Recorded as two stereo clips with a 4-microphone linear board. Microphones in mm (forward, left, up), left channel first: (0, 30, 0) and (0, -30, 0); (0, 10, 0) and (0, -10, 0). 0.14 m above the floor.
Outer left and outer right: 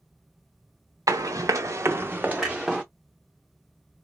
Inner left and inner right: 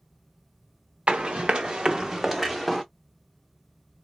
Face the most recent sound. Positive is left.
turn(degrees=0)  # may be behind; listen again after turning